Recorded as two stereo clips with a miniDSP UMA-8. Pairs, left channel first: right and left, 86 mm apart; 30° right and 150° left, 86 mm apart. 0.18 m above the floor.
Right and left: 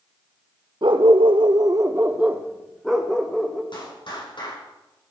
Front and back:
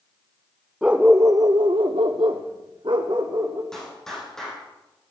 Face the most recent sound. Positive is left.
turn(degrees=-115)